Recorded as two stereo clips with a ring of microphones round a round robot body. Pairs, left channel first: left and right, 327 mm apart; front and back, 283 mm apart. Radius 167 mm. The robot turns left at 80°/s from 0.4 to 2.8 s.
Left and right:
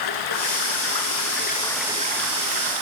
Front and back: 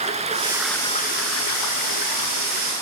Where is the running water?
110° left, 1.7 m; by 2.8 s 80° right, 1.7 m.